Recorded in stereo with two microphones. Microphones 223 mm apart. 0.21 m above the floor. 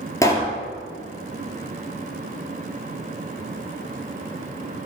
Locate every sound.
0.2 s a pop: 15° left (ahead or behind), 2 m